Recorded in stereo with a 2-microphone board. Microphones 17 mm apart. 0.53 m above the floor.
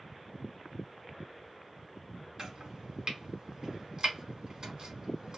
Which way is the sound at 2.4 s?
45° right (ahead or behind).